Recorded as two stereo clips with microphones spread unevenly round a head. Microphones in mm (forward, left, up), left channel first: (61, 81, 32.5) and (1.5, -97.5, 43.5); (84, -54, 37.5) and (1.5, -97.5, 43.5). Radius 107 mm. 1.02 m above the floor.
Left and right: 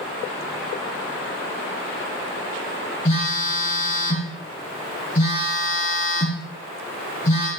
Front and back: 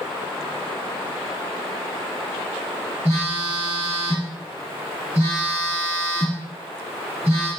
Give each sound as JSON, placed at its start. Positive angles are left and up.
{"t": 3.0, "sound": "a phone buzzing", "azimuth_deg": 130, "distance_m": 5.5}